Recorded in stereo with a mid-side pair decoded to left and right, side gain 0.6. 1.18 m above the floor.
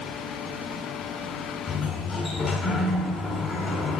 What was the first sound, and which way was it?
A sliding door, 50° left.